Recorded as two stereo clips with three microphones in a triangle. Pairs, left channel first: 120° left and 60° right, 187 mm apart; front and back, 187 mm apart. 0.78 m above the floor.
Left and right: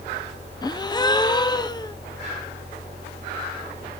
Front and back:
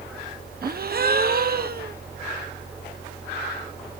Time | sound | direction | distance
0.6 | a gasp | 175° right | 0.7 m